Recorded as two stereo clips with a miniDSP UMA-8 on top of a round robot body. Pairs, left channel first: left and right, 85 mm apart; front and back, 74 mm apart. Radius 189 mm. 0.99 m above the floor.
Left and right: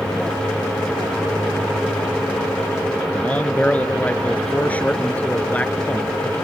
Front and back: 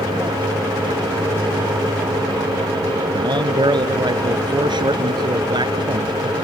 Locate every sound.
3.1 s a man speaking: 165° left